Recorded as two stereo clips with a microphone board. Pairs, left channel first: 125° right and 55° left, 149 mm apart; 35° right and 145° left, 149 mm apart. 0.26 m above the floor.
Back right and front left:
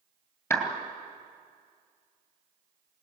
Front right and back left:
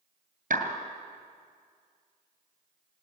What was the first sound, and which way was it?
A clap, 165° left.